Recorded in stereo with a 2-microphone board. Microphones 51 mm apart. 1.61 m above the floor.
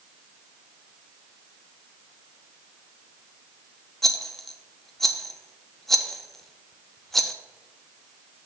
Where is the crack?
No crack in this recording.